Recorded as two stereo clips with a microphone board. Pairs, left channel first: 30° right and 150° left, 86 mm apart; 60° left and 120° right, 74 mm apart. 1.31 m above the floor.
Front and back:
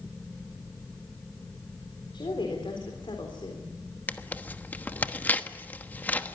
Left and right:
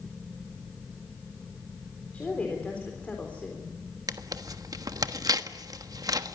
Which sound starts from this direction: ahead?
A woman speaking, at 2.1 s.